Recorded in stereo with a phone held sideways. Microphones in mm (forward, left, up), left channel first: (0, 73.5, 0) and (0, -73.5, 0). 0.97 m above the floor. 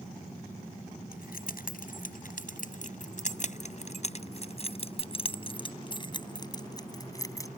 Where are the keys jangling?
70° left (ahead or behind); by 7.5 s 20° left (ahead or behind).